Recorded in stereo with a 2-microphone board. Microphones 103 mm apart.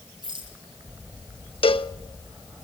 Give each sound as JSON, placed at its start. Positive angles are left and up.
{"t": 0.2, "sound": "a rattle", "side_deg": -50, "distance_m": 7.5}
{"t": 1.6, "sound": "a cowbell", "side_deg": 65, "distance_m": 0.8}